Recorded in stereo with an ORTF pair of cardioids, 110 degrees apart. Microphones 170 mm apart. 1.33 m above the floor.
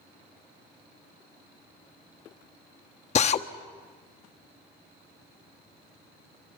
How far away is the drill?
About 1.3 m.